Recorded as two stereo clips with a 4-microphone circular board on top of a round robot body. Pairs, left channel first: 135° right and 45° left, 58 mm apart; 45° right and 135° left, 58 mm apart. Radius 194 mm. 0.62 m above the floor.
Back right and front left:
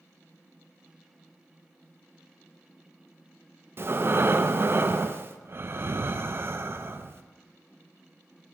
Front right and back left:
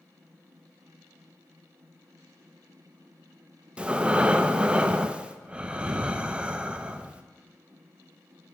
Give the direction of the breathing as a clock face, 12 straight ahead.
10 o'clock.